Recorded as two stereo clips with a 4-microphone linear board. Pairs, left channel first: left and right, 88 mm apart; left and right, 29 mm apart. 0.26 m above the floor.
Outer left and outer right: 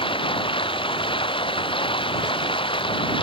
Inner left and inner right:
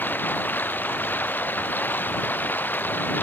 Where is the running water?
80° left.